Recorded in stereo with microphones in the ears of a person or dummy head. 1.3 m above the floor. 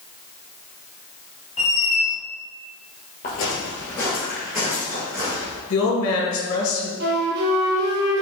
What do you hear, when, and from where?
1.6 s a squeak: 35° left (ahead or behind), 0.7 m
3.2 s footsteps: 35° left (ahead or behind), 1.6 m; by 5.6 s 30° right (ahead or behind), 2.5 m
5.7 s a woman speaking: 65° left (ahead or behind), 1.5 m
7.0 s a flute: 55° right (ahead or behind), 0.9 m